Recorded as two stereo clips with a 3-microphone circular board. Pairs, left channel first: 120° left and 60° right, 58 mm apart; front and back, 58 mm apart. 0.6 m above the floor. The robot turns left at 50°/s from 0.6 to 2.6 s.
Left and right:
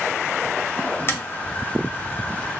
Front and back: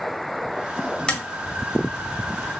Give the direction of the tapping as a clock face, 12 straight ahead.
10 o'clock.